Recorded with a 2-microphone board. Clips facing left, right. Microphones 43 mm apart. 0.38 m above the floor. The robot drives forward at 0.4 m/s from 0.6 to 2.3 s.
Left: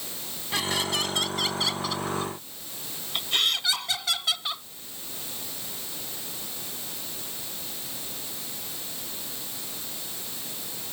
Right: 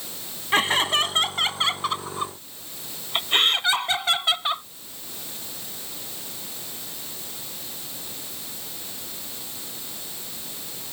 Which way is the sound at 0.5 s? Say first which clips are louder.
Right 7 dB; 45° right (ahead or behind).